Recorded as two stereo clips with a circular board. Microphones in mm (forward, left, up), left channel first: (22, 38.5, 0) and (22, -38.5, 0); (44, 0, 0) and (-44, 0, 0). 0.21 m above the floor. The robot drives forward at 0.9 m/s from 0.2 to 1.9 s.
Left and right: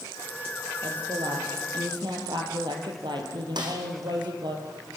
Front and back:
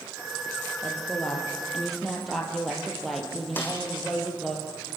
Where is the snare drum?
70° right, 4 m.